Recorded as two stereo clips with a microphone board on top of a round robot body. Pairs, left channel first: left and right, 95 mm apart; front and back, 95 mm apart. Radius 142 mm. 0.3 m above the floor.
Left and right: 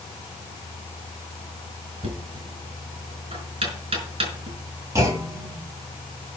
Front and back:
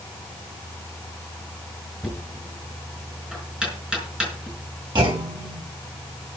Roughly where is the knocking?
Right.